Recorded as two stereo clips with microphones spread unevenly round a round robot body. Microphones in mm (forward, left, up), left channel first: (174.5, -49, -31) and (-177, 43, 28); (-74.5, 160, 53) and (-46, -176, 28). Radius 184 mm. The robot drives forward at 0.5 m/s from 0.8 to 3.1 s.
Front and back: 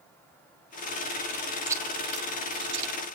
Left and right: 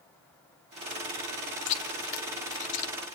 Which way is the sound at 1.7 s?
75° left.